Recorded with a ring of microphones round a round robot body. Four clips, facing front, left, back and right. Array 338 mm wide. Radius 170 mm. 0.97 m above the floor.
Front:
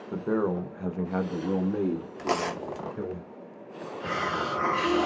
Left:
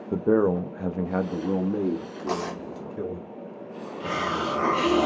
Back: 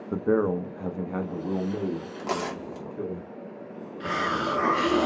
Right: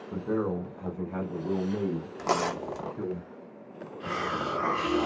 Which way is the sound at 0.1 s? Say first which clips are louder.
Left 8 dB, back 3 dB; 115° left.